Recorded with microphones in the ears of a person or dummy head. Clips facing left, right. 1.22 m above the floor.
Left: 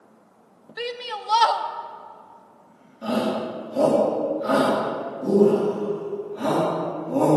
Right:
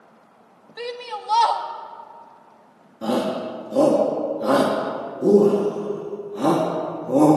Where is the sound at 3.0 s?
65° right (ahead or behind), 0.9 m.